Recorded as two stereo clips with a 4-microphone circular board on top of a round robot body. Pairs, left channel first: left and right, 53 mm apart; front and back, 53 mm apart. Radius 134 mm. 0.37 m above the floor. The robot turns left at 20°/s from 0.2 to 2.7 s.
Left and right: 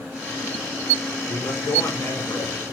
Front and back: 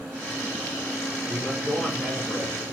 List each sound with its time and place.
1.3 s a man speaking: 90° left, 5 m; by 2.7 s 60° left, 5 m